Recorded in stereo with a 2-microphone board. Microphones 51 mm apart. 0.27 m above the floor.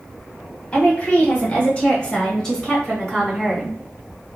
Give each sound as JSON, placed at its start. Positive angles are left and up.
{"t": 0.7, "sound": "a woman speaking", "side_deg": 25, "distance_m": 2.0}